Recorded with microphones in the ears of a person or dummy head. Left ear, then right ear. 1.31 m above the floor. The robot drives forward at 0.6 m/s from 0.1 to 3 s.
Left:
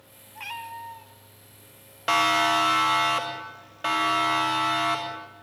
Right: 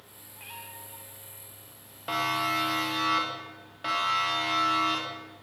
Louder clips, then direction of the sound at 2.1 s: Left 7 dB; 65° left (ahead or behind).